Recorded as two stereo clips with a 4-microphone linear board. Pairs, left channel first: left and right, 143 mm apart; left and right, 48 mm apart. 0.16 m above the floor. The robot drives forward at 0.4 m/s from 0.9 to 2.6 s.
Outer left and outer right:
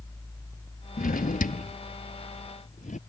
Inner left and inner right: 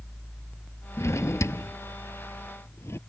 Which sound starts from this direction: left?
A drawer, at 1.0 s.